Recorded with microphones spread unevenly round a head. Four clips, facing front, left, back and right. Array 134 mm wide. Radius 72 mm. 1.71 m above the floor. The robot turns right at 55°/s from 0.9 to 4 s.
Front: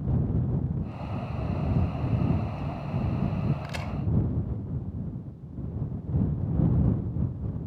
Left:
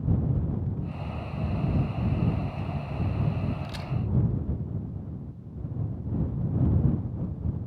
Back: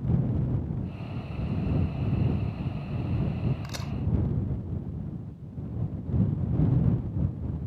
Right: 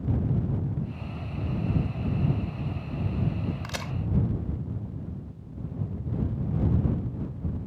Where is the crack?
85° right; by 3.9 s 70° right.